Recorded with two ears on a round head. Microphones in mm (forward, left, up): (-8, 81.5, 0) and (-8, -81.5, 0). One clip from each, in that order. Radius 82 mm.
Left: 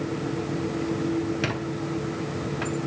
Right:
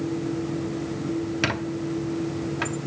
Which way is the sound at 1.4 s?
25° right (ahead or behind).